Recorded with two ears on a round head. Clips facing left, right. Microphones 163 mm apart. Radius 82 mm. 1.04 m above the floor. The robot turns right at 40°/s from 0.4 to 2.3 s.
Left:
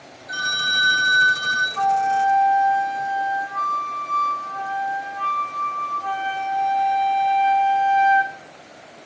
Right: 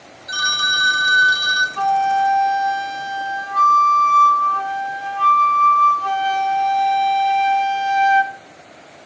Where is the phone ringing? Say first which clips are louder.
Right 3 dB; 85° right, 1.0 m; by 1.7 s 35° right, 1.0 m.